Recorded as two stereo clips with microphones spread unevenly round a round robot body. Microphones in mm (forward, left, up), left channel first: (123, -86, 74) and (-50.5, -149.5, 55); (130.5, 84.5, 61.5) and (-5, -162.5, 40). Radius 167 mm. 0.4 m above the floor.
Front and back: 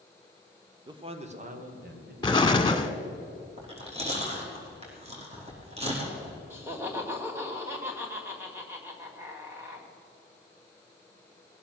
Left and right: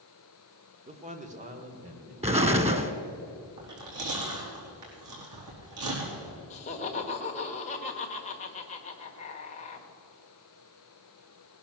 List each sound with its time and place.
0.9 s a man speaking: 140° right, 1.3 m; by 2.1 s straight behind, 2.5 m
2.2 s an explosion: 50° right, 1.5 m
3.6 s chewing: 105° right, 5 m
6.5 s laughter: 130° left, 1.6 m